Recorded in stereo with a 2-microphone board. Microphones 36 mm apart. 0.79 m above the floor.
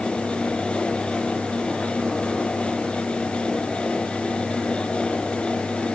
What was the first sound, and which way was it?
Only background noise.